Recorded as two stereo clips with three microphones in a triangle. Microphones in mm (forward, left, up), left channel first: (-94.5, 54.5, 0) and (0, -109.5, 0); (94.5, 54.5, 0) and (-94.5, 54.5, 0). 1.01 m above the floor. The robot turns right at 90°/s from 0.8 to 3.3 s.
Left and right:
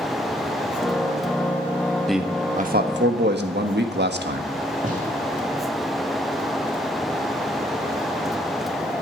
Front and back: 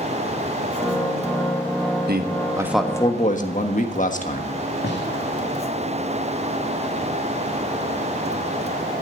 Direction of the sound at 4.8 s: 15° right.